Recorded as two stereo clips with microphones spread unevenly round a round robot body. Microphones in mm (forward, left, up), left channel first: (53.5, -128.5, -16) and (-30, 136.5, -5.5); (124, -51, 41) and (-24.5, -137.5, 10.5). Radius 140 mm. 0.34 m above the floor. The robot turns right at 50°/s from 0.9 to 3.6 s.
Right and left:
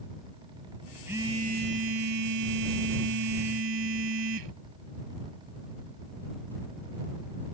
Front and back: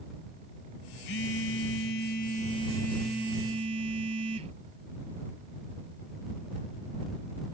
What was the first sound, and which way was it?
A phone buzzing, 25° left.